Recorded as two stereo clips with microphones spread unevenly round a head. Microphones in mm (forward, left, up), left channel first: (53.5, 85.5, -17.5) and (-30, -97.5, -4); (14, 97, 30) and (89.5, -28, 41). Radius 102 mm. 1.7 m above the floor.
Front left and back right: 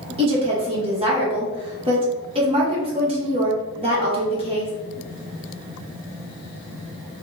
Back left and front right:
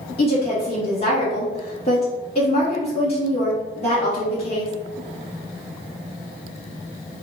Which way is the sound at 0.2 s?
175° right.